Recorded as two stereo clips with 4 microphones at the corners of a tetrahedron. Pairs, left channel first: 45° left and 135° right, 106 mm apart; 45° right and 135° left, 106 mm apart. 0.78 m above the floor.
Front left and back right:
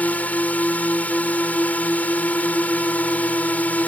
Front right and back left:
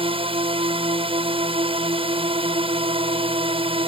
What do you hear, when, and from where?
0.0 s a drone: 120° left